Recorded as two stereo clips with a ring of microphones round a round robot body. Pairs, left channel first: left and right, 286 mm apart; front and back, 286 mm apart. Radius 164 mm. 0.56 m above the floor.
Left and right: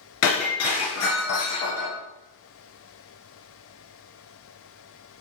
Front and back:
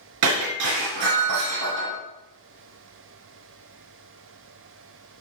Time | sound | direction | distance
0.2 | breaking glass | 135° left | 4 m